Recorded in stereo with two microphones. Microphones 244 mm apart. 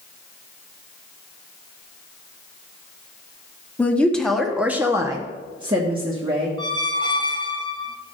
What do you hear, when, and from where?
3.8 s a woman speaking: 5° left (ahead or behind), 1.3 m; by 6.5 s 20° right (ahead or behind), 1.6 m
6.6 s a squeak: 20° left (ahead or behind), 0.7 m